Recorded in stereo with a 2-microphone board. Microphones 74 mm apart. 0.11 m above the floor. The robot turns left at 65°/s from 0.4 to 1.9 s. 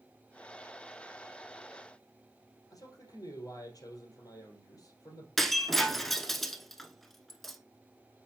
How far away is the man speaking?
About 2.5 m.